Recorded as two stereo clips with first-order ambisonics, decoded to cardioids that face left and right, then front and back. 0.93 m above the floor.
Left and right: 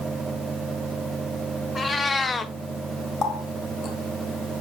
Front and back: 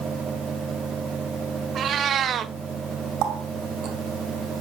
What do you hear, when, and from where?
1.8 s a cat meowing: 155° left, 0.5 m
3.2 s a running tap: 150° left, 1.6 m